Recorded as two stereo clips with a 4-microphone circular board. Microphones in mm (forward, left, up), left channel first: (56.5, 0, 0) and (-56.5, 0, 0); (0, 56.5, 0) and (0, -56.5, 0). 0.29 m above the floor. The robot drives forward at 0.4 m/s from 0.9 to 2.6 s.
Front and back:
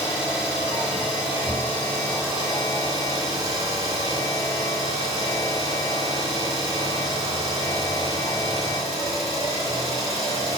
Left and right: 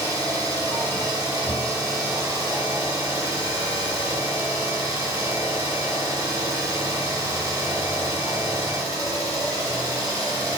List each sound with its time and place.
0.0 s an engine running: 105° right, 1.5 m; by 10.6 s 135° right, 1.7 m